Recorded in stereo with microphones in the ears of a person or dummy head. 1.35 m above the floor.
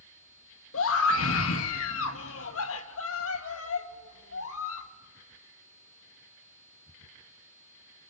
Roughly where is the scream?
Left.